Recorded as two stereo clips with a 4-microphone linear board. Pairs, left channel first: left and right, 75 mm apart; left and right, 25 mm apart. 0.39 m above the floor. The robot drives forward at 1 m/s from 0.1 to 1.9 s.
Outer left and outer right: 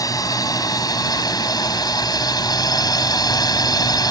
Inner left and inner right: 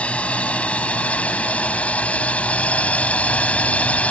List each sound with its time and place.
0.0 s a drone: 55° left (ahead or behind); by 4.1 s 65° left (ahead or behind)